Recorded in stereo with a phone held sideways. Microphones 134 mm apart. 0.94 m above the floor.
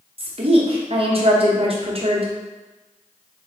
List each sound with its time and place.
0.2 s a woman speaking: 45° right (ahead or behind), 0.7 m